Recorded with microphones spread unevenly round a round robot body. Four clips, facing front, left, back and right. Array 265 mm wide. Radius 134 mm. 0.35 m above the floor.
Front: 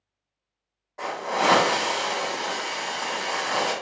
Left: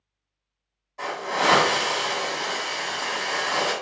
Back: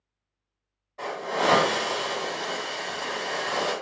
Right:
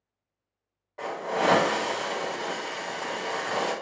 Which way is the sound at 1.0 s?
90° right.